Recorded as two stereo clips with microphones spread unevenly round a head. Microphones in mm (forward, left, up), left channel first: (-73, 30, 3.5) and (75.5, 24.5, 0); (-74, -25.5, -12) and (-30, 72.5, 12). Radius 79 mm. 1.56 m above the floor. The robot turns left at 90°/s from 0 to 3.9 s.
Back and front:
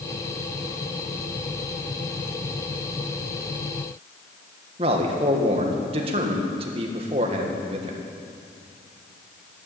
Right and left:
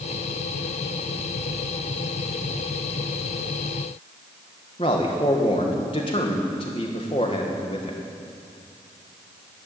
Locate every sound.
4.8 s a man speaking: 60° right, 1.8 m